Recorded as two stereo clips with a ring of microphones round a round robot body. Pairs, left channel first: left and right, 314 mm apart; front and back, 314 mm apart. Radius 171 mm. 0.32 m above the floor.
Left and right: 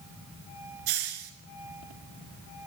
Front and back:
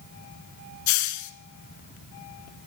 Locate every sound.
0.9 s a hiss: 35° right, 0.7 m